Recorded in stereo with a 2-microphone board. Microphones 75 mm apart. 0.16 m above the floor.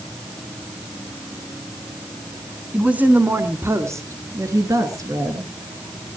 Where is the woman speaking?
15° right (ahead or behind), 1.8 m; by 5.5 s 50° right (ahead or behind), 3 m.